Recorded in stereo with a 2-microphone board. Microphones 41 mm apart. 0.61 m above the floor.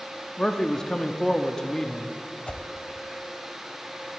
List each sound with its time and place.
0.4 s a man speaking: 15° left (ahead or behind), 0.6 m
2.5 s a whoosh: 35° left (ahead or behind), 0.7 m